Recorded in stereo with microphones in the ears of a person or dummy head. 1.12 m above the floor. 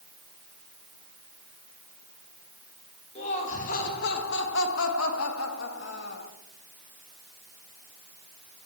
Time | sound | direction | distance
3.1 | laughter | 40° left (ahead or behind) | 1.9 m